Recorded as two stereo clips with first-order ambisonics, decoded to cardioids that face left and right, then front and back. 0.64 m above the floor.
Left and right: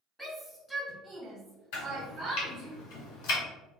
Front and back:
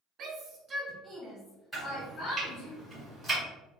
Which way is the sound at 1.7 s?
95° left.